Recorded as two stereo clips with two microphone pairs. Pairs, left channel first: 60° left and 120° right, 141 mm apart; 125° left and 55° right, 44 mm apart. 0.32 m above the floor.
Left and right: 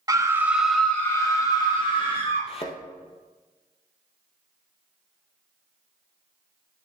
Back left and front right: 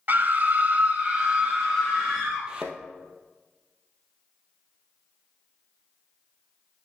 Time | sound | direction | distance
0.1 | a scream | 65° right | 1.3 m
2.5 | a thud | 15° left | 1.4 m